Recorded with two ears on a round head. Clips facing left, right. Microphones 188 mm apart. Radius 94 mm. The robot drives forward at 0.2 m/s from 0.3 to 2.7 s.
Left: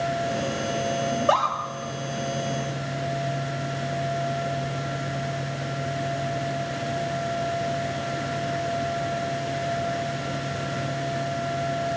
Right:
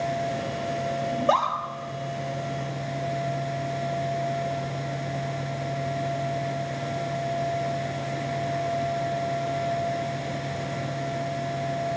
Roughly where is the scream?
Centre.